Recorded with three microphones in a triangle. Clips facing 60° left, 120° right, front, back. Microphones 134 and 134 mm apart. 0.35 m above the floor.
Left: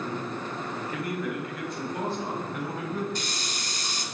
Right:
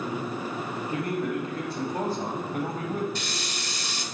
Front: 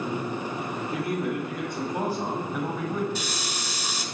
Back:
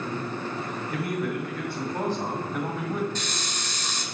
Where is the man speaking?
55° right, 2.5 m; by 3.0 s 100° right, 2.0 m.